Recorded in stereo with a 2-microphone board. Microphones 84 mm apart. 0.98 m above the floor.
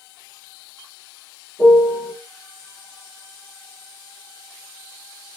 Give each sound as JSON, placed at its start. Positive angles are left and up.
{"t": 1.6, "sound": "a piano", "side_deg": 80, "distance_m": 1.7}